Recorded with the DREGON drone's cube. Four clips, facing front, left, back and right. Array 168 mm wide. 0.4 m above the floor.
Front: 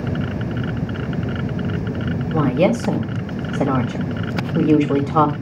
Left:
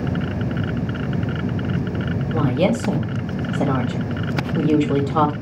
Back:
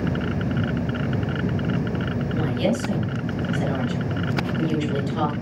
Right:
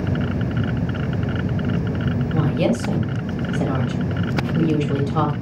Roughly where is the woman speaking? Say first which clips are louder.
Left 2 dB, front 8 dB; ahead.